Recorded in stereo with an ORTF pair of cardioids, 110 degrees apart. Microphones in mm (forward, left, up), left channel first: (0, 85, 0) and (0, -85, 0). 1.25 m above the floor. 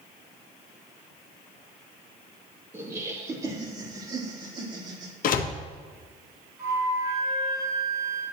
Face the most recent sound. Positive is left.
turn(degrees=-25)